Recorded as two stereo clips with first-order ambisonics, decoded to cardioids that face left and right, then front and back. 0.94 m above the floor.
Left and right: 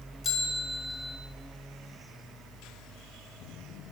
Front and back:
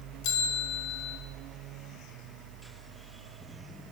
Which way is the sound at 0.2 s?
15° left.